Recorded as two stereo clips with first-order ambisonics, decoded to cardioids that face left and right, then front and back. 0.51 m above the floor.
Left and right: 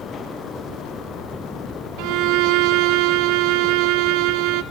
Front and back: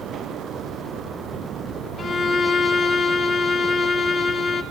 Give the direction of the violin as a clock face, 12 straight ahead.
3 o'clock.